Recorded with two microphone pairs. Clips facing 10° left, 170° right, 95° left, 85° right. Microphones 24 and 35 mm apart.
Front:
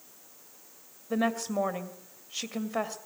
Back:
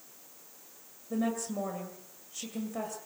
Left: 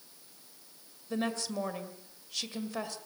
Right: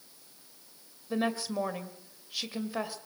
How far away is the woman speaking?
About 1.9 m.